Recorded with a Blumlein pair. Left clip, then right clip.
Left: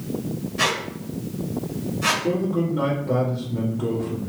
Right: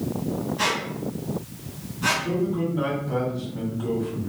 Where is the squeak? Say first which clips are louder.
Left 3 dB; 50° left, 1.4 m.